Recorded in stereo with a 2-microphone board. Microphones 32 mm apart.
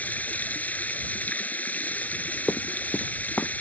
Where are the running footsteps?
55° left (ahead or behind); by 3.5 s 75° left (ahead or behind).